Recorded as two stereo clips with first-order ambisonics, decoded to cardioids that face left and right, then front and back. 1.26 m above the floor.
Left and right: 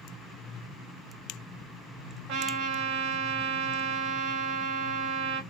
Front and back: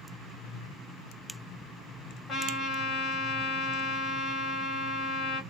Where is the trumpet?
55° right, 1.9 m.